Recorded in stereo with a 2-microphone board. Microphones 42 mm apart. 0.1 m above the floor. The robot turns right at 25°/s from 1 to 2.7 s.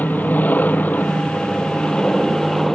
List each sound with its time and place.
0.0 s an aircraft: 130° left; by 2.7 s 170° left